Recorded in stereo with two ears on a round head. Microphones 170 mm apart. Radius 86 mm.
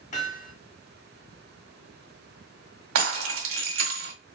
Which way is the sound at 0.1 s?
40° left (ahead or behind).